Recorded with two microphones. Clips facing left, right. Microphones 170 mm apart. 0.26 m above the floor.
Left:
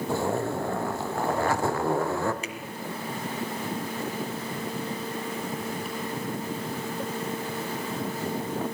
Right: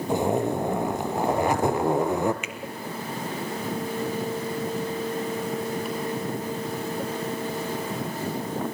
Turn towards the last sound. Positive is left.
turn(degrees=35)  # may be behind; listen again after turning